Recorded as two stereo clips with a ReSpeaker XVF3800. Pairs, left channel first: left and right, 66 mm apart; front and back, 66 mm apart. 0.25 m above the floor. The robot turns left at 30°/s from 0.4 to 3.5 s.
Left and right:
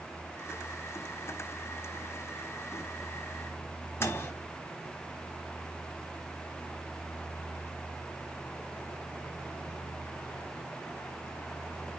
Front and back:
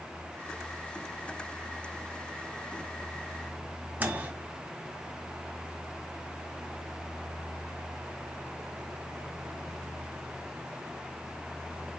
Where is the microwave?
125° left, 1.2 m.